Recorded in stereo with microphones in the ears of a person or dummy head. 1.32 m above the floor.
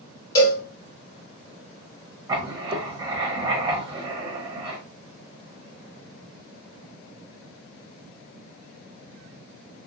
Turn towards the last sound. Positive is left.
turn(degrees=-30)  # may be behind; listen again after turning